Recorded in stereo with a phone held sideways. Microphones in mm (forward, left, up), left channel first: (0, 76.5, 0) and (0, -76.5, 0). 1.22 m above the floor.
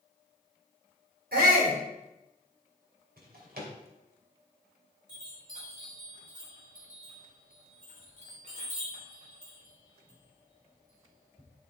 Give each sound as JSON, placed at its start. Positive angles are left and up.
{"t": 1.3, "sound": "a shout", "side_deg": -80, "distance_m": 4.0}
{"t": 3.2, "sound": "a drawer", "side_deg": -80, "distance_m": 2.5}
{"t": 5.1, "sound": "a chime", "side_deg": -60, "distance_m": 3.5}